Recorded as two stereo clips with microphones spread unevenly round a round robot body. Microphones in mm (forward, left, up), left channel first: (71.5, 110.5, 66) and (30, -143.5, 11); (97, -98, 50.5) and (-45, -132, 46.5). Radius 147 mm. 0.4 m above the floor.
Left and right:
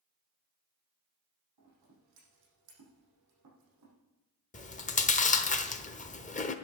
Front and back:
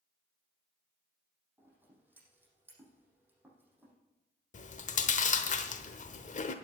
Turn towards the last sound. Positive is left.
turn(degrees=15)